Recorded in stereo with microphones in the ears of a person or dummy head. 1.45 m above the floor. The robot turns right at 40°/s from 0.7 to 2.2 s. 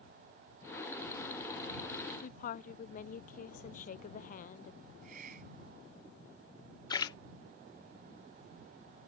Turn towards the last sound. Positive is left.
turn(degrees=25)  # may be behind; listen again after turning